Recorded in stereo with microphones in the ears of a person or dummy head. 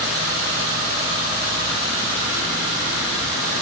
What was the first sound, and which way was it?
Only background noise.